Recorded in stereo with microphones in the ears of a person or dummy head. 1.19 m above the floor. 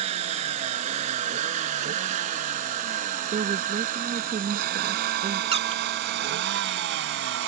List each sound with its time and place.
0.0 s a vehicle: 35° right (ahead or behind); by 7.5 s 70° right (ahead or behind)
3.3 s a woman speaking: 35° right (ahead or behind)
5.5 s a squeak: 30° right (ahead or behind)